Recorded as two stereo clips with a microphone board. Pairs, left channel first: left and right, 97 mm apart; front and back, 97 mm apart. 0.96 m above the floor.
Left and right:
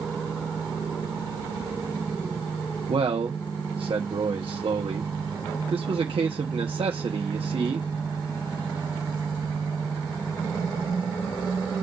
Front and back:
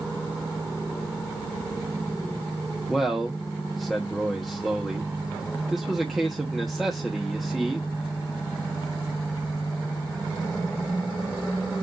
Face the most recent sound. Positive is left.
turn(degrees=-90)